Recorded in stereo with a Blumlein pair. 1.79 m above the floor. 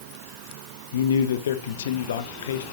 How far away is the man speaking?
About 0.9 m.